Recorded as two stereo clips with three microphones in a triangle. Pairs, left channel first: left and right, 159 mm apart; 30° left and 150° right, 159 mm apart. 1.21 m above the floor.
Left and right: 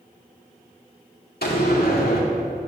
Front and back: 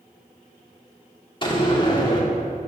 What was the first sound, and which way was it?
A door slam, 90° left.